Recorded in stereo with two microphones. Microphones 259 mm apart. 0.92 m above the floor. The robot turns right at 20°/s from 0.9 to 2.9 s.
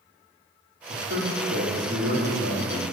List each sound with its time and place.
0.9 s a man speaking: 90° right, 2 m; by 2.8 s 50° right, 2 m